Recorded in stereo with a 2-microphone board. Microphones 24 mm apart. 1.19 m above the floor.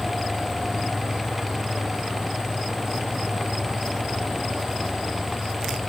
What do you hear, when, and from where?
Only background noise.